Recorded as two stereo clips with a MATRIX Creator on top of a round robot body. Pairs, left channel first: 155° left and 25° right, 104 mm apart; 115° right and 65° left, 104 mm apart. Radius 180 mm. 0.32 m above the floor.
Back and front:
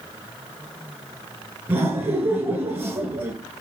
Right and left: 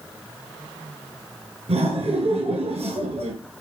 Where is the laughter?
50° left, 5.5 m.